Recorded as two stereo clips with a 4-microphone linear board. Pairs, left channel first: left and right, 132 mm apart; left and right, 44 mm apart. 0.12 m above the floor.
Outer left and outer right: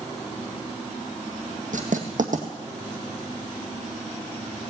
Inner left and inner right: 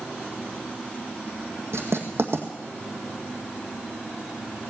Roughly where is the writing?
Right.